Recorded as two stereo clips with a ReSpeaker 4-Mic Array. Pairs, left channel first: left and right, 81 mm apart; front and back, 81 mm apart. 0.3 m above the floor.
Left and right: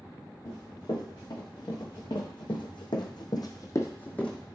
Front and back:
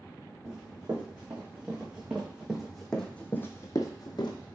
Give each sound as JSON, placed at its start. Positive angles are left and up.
{"t": 0.5, "sound": "running footsteps", "azimuth_deg": 120, "distance_m": 1.9}